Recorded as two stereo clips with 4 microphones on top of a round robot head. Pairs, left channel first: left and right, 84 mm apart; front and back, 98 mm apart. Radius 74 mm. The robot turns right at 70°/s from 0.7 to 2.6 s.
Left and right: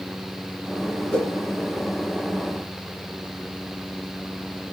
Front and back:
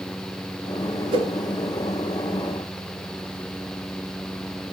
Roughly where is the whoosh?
Behind.